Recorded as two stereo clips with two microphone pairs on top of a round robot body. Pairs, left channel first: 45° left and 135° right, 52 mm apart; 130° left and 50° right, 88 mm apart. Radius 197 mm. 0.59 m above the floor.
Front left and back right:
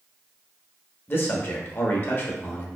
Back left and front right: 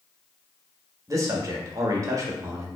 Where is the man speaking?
Straight ahead, 1.2 m.